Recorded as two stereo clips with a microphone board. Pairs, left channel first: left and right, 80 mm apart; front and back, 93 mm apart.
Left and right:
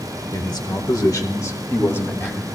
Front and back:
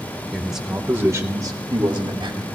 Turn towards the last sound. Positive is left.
turn(degrees=155)